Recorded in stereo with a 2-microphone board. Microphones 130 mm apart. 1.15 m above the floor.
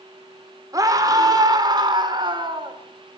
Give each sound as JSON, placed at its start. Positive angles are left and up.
{"t": 0.7, "sound": "a scream", "side_deg": -25, "distance_m": 4.0}